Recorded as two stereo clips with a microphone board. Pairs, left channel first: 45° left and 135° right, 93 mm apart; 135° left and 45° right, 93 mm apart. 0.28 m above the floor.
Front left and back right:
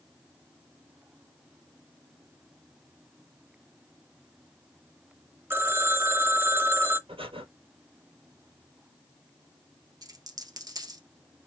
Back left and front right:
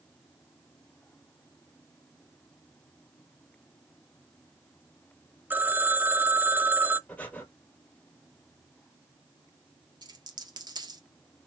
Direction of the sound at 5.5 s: 95° right.